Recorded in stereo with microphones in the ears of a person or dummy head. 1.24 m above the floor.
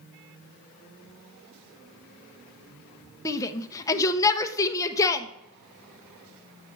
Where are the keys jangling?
I don't hear keys jangling.